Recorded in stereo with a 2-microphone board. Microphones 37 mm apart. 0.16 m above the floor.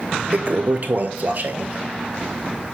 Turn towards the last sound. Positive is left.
turn(degrees=-55)  # may be behind; listen again after turning